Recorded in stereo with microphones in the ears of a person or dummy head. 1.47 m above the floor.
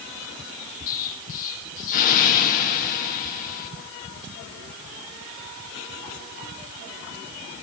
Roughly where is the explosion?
Left.